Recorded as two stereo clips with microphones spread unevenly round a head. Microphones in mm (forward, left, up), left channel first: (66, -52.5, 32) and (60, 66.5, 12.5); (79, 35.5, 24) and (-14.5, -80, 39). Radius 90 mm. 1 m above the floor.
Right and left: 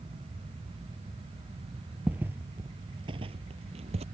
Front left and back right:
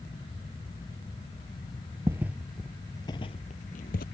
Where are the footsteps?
175° right; by 4.0 s 80° left.